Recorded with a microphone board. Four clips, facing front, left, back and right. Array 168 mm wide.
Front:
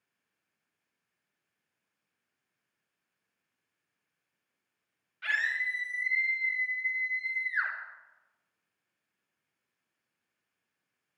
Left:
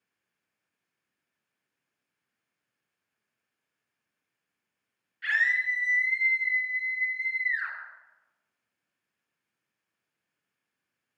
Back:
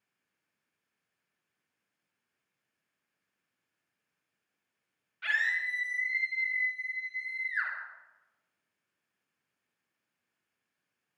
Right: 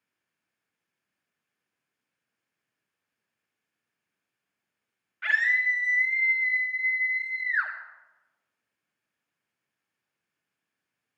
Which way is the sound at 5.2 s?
90° right.